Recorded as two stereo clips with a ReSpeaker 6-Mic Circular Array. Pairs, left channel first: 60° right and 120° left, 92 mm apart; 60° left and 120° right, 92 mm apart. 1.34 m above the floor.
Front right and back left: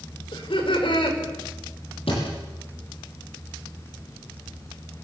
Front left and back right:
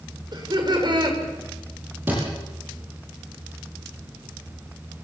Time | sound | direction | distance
0.3 | laughter | 85° right | 5.5 m
2.1 | a thud | 50° right | 9.5 m